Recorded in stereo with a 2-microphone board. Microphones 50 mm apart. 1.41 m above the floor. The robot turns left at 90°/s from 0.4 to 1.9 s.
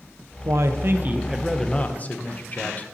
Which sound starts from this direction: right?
A man speaking, at 0.5 s.